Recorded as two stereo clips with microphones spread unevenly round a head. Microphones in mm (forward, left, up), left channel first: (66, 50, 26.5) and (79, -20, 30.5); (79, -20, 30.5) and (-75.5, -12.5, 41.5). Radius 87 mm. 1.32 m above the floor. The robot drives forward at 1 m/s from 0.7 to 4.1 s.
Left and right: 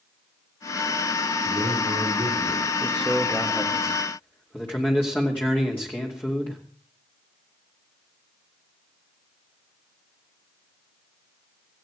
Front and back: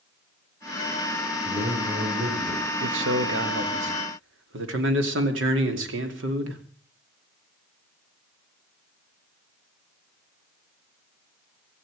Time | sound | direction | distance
1.4 | a man speaking | 130° right | 5 m
2.8 | a man speaking | straight behind | 1.3 m